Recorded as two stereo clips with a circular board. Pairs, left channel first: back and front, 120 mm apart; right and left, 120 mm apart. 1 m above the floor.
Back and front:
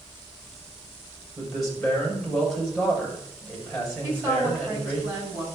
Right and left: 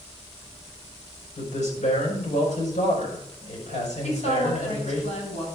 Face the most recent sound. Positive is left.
turn(degrees=-70)